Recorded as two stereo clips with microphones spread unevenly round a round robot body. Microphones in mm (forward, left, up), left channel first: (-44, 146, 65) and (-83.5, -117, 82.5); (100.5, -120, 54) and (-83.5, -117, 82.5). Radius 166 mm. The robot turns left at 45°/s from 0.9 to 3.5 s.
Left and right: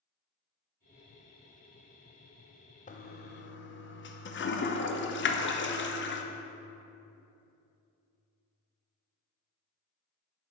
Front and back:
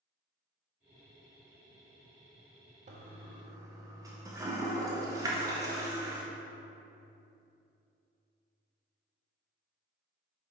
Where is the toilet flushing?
130° left, 0.6 m; by 6.2 s 100° left, 0.6 m.